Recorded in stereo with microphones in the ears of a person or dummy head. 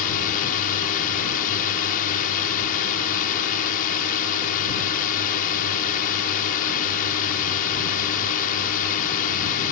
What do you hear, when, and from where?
0.0 s a drone: 50° left (ahead or behind)